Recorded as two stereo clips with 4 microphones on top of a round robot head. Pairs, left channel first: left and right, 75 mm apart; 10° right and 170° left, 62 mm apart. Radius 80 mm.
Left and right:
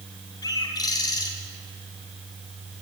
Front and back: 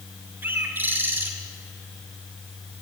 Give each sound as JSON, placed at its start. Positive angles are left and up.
{"t": 0.4, "sound": "a bird", "azimuth_deg": 120, "distance_m": 1.7}